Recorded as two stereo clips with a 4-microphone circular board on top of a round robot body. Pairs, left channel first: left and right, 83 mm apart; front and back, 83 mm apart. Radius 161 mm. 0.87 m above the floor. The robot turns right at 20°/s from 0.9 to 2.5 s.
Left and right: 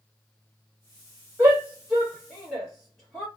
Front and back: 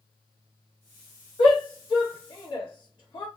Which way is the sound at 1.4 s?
15° right.